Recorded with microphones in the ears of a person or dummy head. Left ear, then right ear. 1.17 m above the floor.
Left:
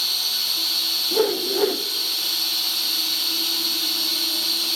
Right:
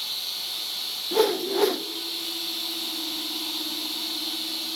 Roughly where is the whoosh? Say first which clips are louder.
Left 2 dB; right.